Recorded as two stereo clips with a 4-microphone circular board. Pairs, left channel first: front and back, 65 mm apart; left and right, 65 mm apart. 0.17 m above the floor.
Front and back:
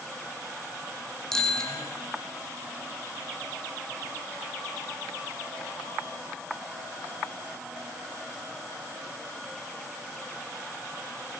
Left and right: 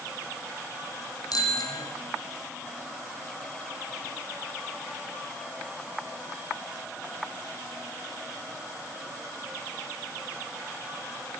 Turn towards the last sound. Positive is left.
turn(degrees=80)